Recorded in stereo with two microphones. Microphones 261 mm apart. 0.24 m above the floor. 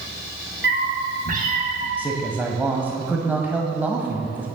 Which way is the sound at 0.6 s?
45° right (ahead or behind).